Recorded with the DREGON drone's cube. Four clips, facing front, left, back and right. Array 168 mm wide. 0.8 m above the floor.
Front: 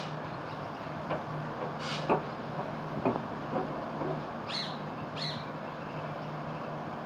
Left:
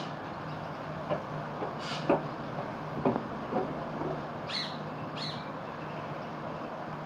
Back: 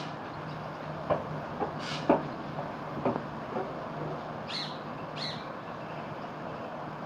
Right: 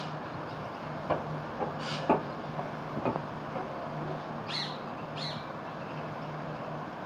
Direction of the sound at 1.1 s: 145° right.